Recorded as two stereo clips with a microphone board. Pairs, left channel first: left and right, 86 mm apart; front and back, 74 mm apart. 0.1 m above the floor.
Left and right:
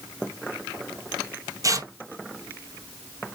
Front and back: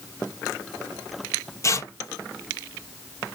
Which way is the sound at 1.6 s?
45° right.